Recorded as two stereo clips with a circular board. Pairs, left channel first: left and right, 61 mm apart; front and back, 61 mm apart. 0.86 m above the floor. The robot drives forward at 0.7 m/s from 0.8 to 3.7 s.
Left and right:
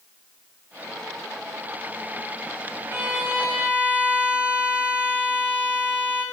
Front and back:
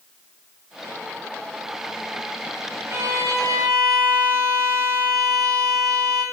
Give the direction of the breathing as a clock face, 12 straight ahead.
No breathing in this recording.